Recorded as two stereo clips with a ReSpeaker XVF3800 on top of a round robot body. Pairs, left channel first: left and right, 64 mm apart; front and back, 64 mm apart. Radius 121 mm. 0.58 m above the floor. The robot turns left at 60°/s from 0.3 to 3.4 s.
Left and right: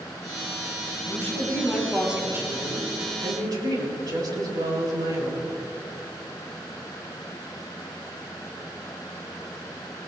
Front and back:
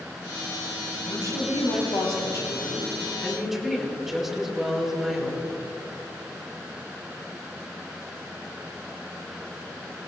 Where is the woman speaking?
50° left, 4.5 m; by 5.6 s 95° right, 4.5 m.